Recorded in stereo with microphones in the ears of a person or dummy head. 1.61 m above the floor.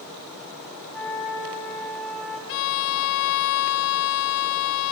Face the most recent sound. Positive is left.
turn(degrees=55)  # may be behind; listen again after turning